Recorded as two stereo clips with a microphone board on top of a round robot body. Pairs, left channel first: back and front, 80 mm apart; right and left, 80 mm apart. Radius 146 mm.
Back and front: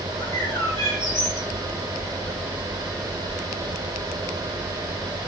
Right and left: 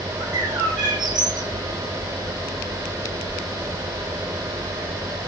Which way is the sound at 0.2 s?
125° left.